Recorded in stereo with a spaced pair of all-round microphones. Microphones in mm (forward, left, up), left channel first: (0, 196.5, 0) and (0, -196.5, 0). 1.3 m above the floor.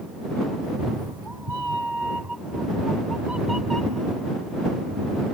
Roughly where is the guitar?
I don't hear a guitar.